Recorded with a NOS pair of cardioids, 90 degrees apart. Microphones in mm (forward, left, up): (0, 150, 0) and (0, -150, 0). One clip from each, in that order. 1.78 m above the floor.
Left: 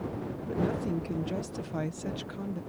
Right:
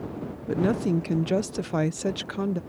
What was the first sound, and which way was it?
A woman speaking, 60° right.